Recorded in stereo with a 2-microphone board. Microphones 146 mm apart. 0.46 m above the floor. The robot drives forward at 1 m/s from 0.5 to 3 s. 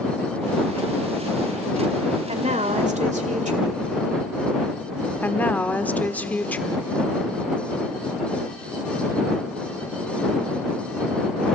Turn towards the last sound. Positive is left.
turn(degrees=10)  # may be behind; listen again after turning